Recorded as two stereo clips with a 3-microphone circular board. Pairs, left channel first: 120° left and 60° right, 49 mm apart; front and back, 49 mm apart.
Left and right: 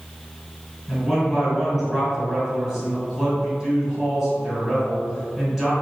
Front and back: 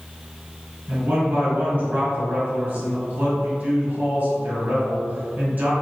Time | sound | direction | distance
0.9 | a man speaking | 160° right | 2.0 m